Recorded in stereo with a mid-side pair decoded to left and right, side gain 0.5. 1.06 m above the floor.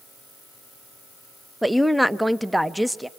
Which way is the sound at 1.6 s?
5° right.